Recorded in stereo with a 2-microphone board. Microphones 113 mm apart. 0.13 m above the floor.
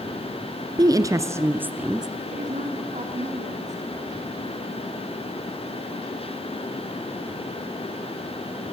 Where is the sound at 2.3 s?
75° right (ahead or behind), 7 m.